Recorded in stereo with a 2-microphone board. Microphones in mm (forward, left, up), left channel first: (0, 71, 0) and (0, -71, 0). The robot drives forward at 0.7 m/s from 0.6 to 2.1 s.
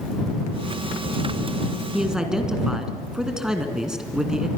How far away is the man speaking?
About 2.5 m.